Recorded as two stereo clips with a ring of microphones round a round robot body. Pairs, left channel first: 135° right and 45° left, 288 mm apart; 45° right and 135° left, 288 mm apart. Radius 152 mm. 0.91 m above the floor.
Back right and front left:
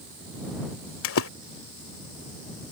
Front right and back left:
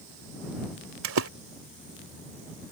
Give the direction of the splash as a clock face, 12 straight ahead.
6 o'clock.